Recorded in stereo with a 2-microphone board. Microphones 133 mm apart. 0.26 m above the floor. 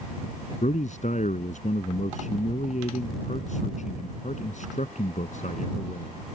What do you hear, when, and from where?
0.6 s a man speaking: 65° left (ahead or behind)